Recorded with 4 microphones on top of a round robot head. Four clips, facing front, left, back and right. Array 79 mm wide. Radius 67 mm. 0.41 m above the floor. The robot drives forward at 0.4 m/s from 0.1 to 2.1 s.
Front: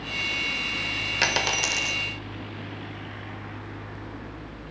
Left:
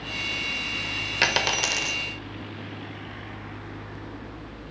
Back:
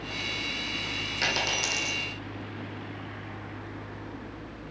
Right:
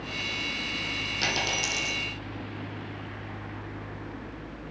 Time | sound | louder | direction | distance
1.2 | a dropped coin | left 6 dB, front 4 dB | 65° left | 0.8 m